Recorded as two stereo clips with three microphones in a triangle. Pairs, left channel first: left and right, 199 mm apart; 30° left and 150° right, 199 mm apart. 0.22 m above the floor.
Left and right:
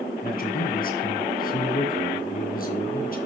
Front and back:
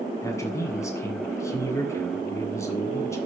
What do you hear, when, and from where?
0.2 s a man speaking: 100° left, 2 m